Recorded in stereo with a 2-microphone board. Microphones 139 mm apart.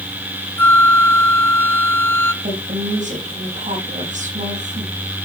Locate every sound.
0.6 s a flute: 15° left (ahead or behind), 0.6 m
2.4 s a woman speaking: 60° right (ahead or behind), 7 m